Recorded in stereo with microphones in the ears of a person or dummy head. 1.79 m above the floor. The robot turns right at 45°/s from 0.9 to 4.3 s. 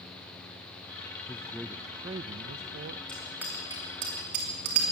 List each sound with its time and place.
1.3 s a man speaking: 170° left, 0.5 m; by 3.0 s 115° right, 0.5 m
3.1 s a bicycle bell: 5° left (ahead or behind), 3 m; by 4.8 s 50° right (ahead or behind), 3 m